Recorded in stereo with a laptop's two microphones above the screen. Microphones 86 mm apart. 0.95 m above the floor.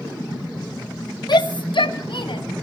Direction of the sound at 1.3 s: 60° left (ahead or behind).